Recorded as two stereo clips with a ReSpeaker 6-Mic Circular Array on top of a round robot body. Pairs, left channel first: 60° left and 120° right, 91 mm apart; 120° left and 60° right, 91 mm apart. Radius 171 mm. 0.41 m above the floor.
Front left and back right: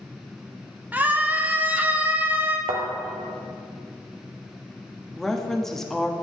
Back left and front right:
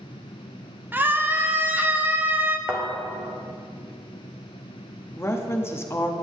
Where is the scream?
85° right, 1.1 m.